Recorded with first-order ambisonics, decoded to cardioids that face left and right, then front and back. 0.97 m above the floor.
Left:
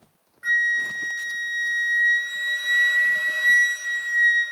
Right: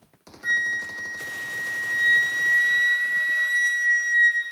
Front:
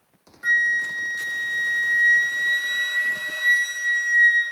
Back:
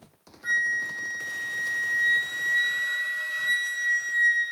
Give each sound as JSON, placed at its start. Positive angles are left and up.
{"t": 0.4, "sound": "a flute", "azimuth_deg": 35, "distance_m": 1.6}